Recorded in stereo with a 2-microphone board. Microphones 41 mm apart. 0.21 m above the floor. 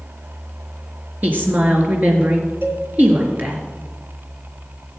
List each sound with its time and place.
1.2 s a woman speaking: 45° right (ahead or behind), 3.5 m
2.6 s a cowbell: 60° right (ahead or behind), 2.5 m